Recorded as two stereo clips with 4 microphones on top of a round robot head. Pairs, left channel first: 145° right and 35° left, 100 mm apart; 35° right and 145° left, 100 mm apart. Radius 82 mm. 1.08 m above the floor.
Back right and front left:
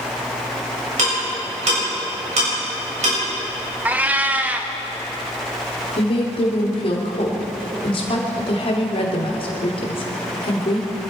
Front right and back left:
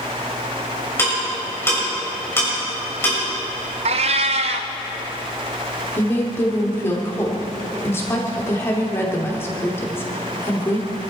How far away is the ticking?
About 7.5 m.